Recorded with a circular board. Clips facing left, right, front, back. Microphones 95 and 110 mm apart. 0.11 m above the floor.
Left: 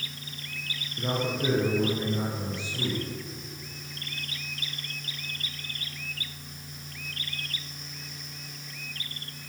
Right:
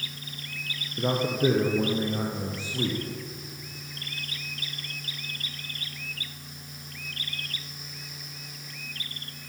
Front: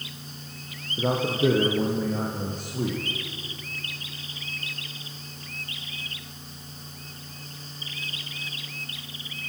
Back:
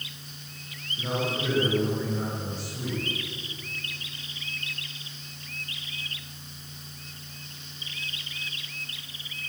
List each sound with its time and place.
1.0 s a man speaking: 35° right, 5.5 m; by 3.0 s 40° right, 6.5 m